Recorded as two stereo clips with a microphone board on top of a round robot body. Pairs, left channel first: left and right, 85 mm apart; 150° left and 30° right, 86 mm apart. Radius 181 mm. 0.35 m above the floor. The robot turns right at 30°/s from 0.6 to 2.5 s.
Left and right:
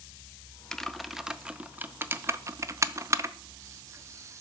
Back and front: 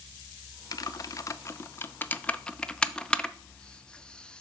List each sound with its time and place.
0.7 s typing on a keyboard: 175° left, 0.6 m; by 4.4 s 135° right, 0.6 m